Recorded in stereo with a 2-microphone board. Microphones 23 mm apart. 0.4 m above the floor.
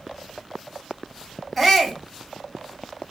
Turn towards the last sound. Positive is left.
turn(degrees=5)  # may be behind; listen again after turning